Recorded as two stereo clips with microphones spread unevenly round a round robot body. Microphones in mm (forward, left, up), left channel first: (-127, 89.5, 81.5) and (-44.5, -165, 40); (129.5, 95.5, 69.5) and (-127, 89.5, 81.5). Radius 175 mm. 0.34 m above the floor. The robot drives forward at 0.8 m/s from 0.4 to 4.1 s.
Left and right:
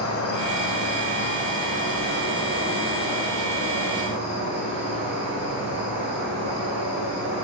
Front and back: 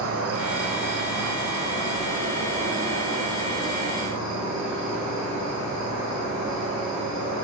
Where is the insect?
145° left, 0.9 m; by 7.4 s 175° left, 3.5 m.